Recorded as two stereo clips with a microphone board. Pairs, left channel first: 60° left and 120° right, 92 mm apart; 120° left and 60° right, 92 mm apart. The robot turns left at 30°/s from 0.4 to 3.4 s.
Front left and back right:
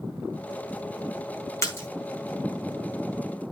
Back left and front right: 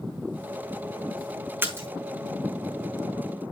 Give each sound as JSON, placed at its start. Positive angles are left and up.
{"t": 1.6, "sound": "a splash", "azimuth_deg": 5, "distance_m": 3.5}